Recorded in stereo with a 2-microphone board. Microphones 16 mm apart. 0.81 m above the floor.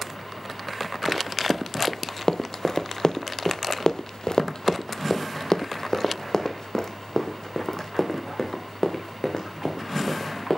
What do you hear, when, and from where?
1.1 s running footsteps: 15° left (ahead or behind), 1.6 m; by 10.6 s 25° left (ahead or behind), 4 m